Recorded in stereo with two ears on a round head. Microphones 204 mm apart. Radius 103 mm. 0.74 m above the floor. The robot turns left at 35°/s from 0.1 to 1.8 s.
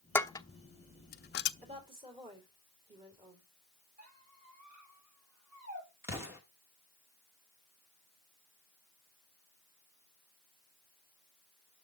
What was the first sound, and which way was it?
Dishes clattering, 10° left (ahead or behind).